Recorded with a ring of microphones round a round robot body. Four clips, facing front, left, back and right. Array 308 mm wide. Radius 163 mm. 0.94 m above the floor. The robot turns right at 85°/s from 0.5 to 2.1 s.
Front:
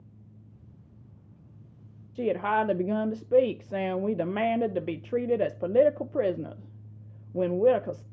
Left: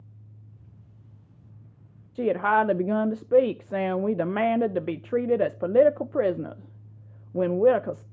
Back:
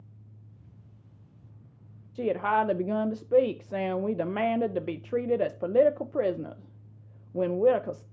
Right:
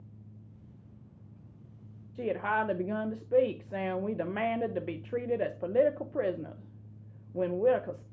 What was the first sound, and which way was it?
A woman speaking, 75° left.